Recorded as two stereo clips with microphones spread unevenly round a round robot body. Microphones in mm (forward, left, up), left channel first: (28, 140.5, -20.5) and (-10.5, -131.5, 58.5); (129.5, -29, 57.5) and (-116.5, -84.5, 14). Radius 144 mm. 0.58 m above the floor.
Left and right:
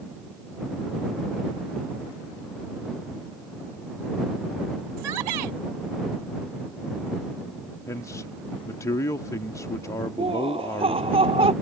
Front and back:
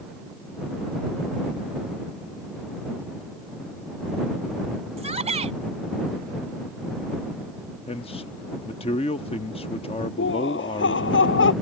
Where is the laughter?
30° right.